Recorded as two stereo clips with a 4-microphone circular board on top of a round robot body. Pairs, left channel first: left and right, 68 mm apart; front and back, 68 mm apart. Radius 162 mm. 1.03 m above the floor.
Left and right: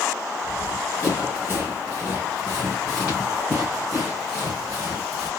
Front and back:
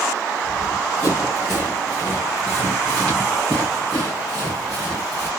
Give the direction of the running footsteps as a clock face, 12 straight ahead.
11 o'clock.